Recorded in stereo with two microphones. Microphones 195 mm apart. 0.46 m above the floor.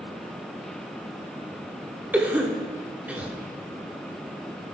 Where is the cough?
10° right (ahead or behind), 0.8 m.